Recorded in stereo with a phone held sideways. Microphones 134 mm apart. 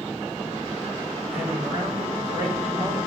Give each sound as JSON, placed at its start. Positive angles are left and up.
{"t": 1.3, "sound": "a man speaking", "side_deg": -20, "distance_m": 5.5}